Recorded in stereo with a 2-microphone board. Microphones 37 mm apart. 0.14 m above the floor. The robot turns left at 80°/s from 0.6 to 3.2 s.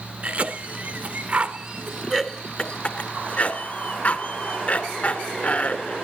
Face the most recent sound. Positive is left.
turn(degrees=40)  # may be behind; listen again after turning